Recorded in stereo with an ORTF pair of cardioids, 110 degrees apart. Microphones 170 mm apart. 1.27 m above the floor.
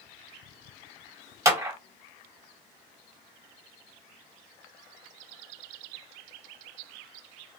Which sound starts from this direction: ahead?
A clap, at 1.4 s.